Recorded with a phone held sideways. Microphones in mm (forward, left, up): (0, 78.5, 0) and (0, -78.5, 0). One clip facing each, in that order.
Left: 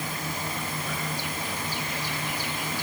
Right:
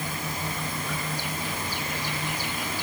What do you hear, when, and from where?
Only background noise.